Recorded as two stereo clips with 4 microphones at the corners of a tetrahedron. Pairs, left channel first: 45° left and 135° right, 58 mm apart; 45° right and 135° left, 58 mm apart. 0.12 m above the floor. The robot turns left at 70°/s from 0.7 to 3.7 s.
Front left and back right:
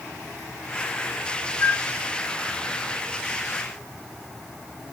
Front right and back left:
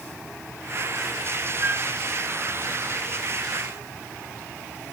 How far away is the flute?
About 0.7 m.